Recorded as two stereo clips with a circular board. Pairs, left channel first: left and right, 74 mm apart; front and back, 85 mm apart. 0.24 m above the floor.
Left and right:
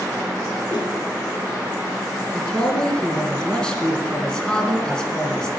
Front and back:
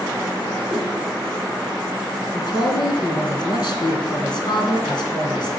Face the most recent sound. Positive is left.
turn(degrees=10)